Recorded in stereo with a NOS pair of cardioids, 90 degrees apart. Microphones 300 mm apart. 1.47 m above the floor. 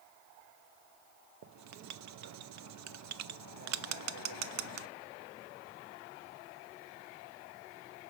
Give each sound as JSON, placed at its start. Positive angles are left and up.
{"t": 1.4, "sound": "writing", "azimuth_deg": -65, "distance_m": 0.6}